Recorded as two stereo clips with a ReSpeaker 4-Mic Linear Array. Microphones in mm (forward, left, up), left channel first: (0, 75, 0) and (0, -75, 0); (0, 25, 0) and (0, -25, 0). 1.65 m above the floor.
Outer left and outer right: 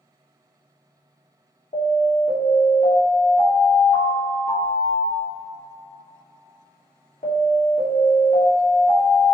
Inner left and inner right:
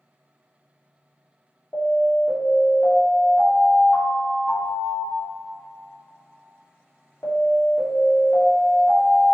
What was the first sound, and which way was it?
An alarm, 65° left (ahead or behind).